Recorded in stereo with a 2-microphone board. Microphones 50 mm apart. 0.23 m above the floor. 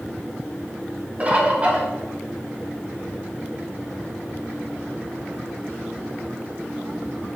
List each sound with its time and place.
1.2 s a bird: 30° right (ahead or behind), 0.9 m